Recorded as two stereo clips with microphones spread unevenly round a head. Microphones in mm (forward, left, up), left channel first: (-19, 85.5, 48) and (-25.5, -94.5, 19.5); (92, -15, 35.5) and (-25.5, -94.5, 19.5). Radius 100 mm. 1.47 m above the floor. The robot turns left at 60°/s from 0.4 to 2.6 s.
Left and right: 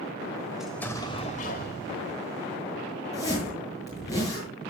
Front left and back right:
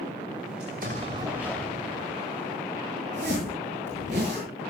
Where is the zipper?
160° left, 8 m.